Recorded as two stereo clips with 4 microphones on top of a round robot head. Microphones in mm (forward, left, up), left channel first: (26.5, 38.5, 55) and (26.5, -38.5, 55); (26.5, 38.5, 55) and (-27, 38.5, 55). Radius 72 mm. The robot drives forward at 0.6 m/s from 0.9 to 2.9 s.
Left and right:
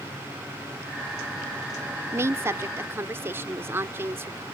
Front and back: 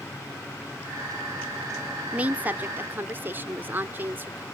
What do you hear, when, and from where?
2.1 s a woman speaking: 125° right; by 4.4 s 140° right